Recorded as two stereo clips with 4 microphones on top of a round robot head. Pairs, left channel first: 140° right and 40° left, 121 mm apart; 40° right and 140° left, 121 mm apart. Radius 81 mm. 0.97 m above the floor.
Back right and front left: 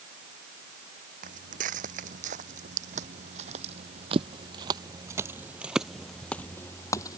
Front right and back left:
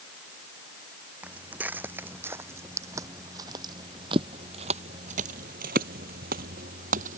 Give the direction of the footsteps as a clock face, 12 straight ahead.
10 o'clock.